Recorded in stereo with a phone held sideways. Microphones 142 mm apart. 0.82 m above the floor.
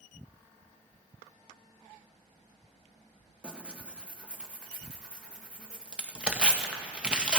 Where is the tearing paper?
5° right (ahead or behind), 0.9 m.